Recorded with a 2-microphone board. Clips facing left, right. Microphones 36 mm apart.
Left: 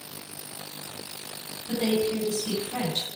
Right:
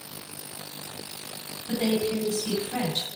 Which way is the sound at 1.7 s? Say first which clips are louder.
Even; 50° right (ahead or behind).